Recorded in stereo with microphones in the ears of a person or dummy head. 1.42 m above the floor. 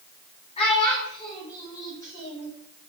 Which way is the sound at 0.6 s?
30° left (ahead or behind).